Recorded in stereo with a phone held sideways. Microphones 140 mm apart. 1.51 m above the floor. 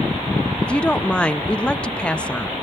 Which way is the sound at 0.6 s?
10° left (ahead or behind).